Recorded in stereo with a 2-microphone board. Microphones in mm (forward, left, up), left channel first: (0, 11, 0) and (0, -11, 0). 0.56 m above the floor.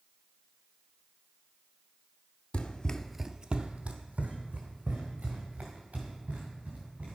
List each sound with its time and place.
2.5 s running footsteps: 55° left (ahead or behind), 0.9 m; by 7.2 s 85° right, 5 m